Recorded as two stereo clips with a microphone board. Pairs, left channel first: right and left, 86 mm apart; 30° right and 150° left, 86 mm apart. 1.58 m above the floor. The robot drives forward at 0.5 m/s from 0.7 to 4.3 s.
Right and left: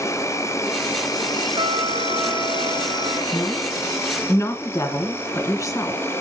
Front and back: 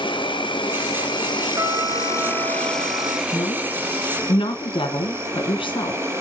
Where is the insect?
35° right, 1.0 m; by 6.2 s 150° right, 1.2 m.